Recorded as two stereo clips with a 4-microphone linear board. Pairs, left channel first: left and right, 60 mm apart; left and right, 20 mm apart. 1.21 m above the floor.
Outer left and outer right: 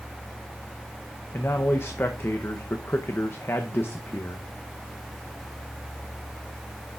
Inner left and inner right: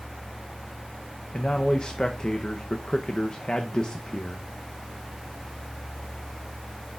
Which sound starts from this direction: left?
A man speaking, at 1.3 s.